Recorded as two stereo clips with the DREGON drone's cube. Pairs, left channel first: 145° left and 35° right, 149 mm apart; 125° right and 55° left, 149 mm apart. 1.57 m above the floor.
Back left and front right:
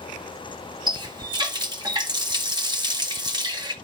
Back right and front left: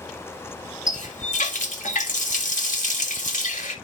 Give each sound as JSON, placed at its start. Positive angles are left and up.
{"t": 0.9, "sound": "a running tap", "azimuth_deg": -95, "distance_m": 1.8}